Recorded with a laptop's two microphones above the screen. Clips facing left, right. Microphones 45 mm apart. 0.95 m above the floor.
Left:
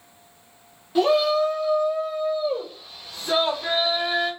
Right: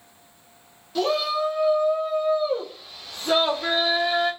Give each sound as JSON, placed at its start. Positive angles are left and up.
{"t": 0.9, "sound": "a shout", "side_deg": 20, "distance_m": 0.5}